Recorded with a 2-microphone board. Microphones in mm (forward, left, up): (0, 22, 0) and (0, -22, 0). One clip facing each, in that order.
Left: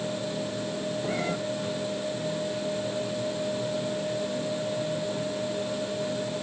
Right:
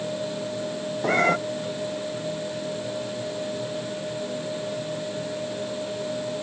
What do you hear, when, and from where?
1.0 s a cat meowing: 60° right (ahead or behind)